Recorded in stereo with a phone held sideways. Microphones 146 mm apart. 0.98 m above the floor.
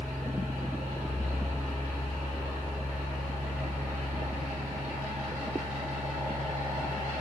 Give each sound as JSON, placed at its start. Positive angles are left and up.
{"t": 0.0, "sound": "a fan", "side_deg": -55, "distance_m": 1.8}